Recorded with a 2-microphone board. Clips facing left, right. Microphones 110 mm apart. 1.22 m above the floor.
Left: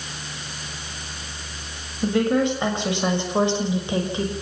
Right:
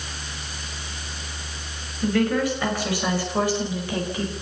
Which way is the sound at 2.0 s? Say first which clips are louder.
Left 2 dB; 25° left (ahead or behind).